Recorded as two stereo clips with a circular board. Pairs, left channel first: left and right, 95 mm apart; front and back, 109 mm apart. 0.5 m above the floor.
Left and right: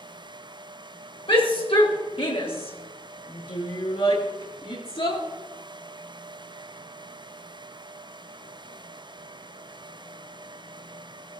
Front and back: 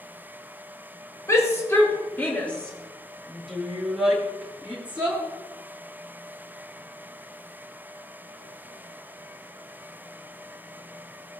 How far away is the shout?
About 6 m.